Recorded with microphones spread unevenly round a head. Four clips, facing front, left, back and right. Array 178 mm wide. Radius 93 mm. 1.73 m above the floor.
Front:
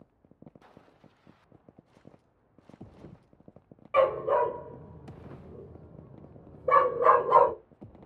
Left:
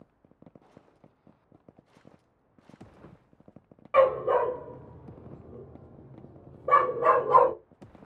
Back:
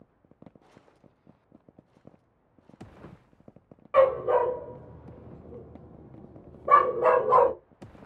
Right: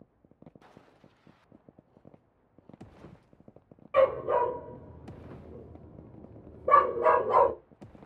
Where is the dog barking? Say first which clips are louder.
Left 2 dB, back 3 dB; 100° left, 1.8 m; by 7.5 s 160° right, 1.7 m.